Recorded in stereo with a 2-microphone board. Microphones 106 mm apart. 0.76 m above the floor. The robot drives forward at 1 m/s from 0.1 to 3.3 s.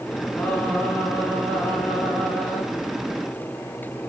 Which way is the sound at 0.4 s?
15° left (ahead or behind).